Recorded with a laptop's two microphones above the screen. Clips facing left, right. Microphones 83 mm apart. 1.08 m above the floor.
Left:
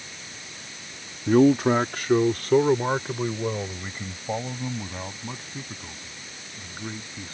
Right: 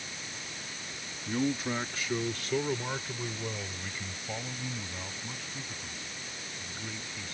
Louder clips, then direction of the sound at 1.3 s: Left 14 dB; 80° left.